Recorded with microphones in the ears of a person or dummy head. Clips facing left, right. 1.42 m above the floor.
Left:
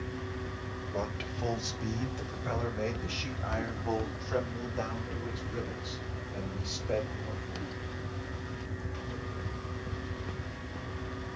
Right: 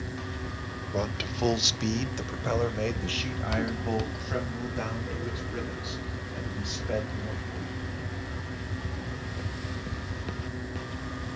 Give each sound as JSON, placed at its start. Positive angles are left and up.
{"t": 0.9, "sound": "a man speaking", "side_deg": -45, "distance_m": 1.0}